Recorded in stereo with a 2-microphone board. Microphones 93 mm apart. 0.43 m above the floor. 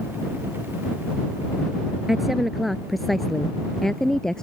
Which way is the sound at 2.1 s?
Centre (ahead or behind).